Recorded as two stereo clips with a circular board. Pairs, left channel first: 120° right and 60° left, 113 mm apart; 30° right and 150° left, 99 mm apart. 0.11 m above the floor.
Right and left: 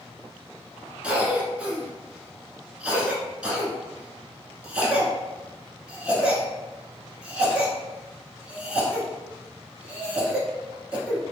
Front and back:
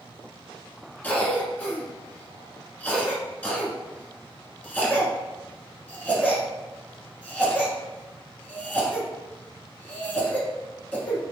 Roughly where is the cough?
Ahead.